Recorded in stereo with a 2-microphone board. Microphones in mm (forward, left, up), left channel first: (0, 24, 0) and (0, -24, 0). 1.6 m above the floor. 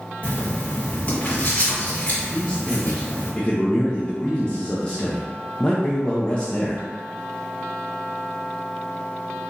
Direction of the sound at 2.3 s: 20° left (ahead or behind).